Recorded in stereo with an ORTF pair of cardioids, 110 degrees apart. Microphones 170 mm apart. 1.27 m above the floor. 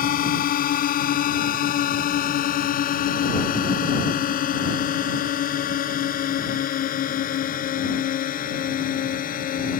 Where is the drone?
60° left.